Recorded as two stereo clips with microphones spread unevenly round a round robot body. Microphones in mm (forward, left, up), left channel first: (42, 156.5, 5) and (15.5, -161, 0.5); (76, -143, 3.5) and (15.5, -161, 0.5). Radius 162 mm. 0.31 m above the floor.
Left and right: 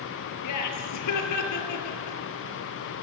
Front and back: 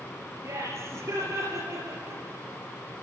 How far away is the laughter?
About 5 m.